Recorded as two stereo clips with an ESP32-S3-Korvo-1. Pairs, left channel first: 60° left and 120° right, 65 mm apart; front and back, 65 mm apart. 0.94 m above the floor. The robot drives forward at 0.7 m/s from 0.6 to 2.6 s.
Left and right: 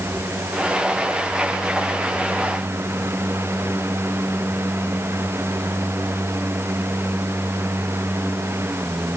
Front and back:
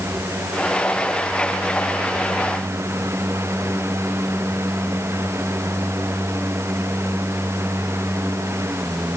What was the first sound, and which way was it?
Only background noise.